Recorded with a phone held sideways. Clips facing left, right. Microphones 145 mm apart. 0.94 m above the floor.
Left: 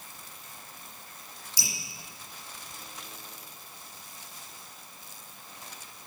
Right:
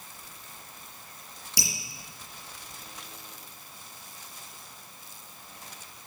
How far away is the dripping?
About 5 m.